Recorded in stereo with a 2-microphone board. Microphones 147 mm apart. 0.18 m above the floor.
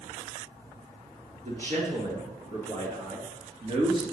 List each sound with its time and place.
1.4 s a man speaking: 65° right (ahead or behind), 3.5 m; by 4.0 s 40° right (ahead or behind), 3 m